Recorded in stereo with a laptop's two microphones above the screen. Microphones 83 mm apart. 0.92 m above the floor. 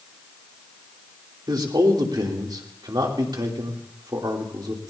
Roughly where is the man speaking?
Right.